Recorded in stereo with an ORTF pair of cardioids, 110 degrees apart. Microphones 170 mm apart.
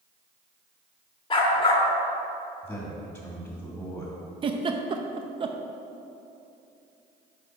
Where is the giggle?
30° right, 0.7 m.